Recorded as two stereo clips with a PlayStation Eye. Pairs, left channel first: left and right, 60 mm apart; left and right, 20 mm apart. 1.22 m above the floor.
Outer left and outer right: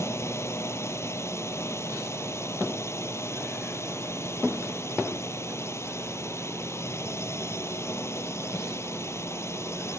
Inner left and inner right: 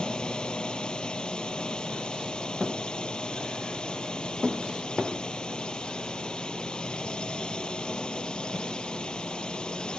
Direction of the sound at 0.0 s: 50° left (ahead or behind).